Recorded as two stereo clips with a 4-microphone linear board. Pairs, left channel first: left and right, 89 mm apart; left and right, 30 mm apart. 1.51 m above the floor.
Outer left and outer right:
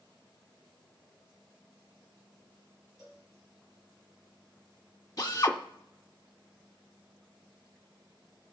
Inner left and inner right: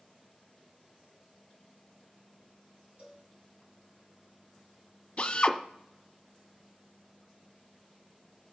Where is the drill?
40° left (ahead or behind), 1.5 m.